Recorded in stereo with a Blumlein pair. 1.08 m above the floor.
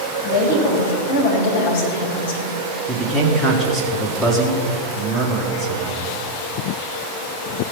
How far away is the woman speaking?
About 4.5 m.